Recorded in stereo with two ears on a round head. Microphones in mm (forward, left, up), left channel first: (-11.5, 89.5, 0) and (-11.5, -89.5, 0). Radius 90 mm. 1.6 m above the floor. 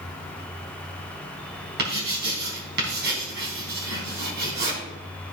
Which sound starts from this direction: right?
Writing, at 1.8 s.